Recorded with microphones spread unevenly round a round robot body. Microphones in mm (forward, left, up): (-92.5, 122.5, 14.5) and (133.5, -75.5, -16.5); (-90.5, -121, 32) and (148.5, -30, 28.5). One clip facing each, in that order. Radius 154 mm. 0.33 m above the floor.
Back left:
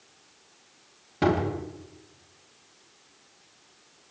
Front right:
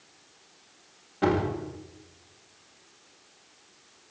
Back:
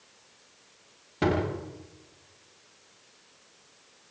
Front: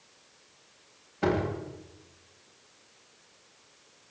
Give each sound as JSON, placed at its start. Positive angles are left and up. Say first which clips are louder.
{"t": 1.2, "sound": "a door slam", "louder": "back left 1 dB, back 1 dB", "azimuth_deg": 170, "distance_m": 10.0}